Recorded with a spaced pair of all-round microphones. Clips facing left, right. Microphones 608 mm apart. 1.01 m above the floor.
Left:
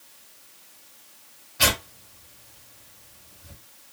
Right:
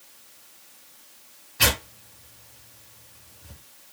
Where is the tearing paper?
15° left (ahead or behind), 1.4 m.